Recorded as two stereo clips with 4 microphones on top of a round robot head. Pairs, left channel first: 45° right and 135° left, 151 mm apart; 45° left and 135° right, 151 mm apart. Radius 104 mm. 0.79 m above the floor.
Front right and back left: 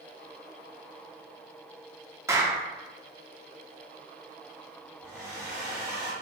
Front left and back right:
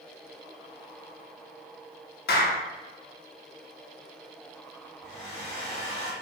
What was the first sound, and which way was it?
A clap, 60° left.